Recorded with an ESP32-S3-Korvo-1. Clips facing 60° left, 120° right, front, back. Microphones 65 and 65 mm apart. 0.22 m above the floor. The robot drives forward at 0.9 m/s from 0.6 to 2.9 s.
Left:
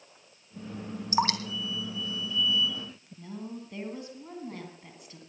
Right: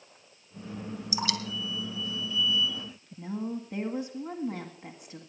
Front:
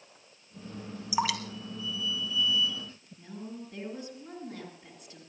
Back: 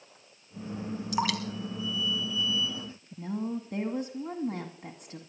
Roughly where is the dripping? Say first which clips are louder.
Left 6 dB, even; left.